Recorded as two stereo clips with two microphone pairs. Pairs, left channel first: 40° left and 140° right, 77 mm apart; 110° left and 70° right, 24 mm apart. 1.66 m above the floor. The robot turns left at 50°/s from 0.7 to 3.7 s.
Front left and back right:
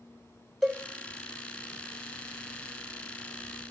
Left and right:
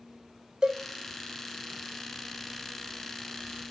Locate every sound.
0.6 s a cowbell: 55° right, 0.9 m; by 0.8 s 60° right, 0.9 m